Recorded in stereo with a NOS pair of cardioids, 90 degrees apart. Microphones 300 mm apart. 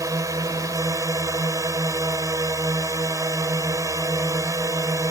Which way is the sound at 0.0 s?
10° right.